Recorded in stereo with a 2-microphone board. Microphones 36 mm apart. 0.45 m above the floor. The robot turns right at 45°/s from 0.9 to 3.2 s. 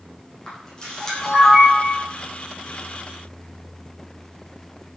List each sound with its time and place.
0.5 s a camera shutter: 25° left (ahead or behind), 10 m; by 2.0 s 25° right (ahead or behind), 10 m